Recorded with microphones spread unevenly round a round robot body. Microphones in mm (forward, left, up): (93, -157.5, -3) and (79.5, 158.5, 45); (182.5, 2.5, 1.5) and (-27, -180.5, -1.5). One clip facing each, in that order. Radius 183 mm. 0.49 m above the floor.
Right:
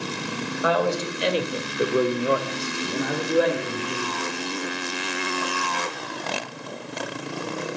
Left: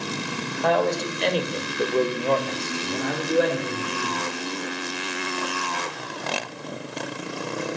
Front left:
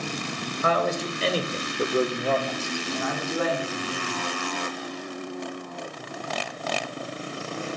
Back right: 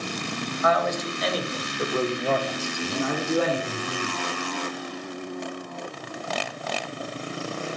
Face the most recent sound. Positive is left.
turn(degrees=-175)